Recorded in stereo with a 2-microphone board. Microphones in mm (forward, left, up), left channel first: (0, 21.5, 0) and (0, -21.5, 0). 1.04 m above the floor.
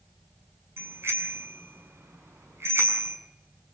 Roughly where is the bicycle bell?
Right.